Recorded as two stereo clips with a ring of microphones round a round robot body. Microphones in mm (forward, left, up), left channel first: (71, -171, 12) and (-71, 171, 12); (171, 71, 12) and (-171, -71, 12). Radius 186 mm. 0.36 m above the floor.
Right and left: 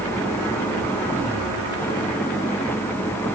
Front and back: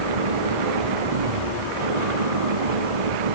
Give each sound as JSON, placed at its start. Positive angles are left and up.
{"t": 0.0, "sound": "an engine running", "azimuth_deg": -155}